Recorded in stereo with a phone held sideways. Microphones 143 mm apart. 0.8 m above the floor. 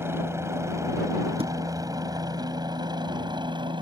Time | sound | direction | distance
0.0 | a helicopter | 15° right (ahead or behind) | ?
1.4 | a thud | 40° right (ahead or behind) | ?